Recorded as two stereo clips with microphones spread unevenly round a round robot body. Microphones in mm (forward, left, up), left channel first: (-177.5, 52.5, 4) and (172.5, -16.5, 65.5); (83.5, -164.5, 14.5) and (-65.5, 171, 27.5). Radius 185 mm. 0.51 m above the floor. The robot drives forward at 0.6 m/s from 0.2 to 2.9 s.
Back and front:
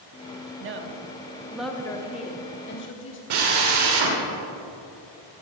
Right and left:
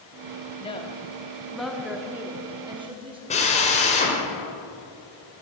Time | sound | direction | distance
0.6 | a woman speaking | 15° right | 1.1 m
3.3 | a drill | 5° left | 2.5 m